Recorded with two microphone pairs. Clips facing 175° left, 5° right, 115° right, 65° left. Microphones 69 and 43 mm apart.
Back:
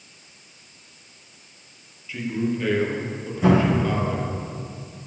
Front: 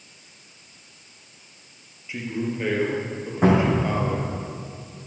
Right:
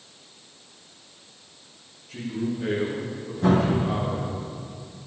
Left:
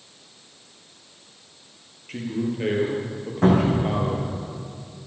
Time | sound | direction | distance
2.1 | a man speaking | 65° left | 3.5 m
3.4 | a cupboard door | 35° left | 5 m